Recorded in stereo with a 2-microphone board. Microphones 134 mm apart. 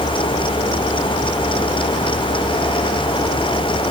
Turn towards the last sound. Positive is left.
No sound to turn to.